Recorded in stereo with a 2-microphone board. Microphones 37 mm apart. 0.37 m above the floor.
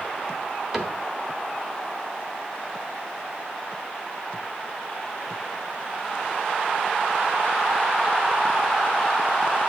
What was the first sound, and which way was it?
A cupboard door, 15° right (ahead or behind).